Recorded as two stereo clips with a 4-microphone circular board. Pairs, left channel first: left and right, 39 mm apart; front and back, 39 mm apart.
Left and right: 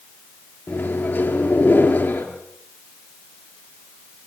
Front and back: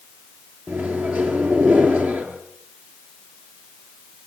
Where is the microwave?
140° left, 4 m.